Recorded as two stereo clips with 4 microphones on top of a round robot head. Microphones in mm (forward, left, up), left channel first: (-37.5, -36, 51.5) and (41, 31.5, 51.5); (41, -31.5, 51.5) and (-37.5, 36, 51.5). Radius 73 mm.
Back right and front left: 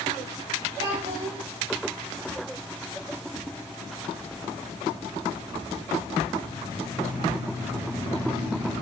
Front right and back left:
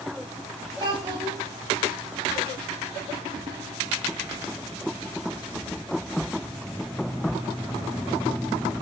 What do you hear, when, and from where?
0.8 s a child speaking: 90° left, 3 m